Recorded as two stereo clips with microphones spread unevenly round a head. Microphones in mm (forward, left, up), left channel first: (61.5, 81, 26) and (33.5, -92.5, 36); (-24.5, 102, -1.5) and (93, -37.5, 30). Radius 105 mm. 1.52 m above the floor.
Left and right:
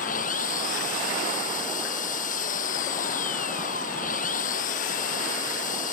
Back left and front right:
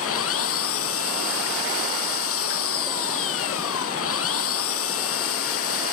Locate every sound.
0.0 s an engine running: 135° left